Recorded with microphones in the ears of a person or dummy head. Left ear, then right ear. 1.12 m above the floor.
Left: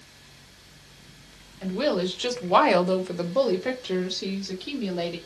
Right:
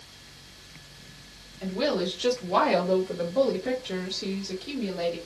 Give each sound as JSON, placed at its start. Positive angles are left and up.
{"t": 1.6, "sound": "a woman speaking", "side_deg": 15, "distance_m": 0.9}